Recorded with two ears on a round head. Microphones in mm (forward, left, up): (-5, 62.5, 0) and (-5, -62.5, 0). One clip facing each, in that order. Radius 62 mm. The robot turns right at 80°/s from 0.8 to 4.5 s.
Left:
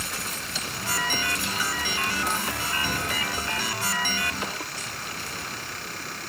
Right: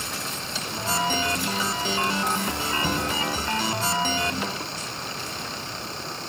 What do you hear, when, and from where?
2.8 s knocking: 65° right (ahead or behind), 3 m; by 3.1 s 40° right (ahead or behind), 3 m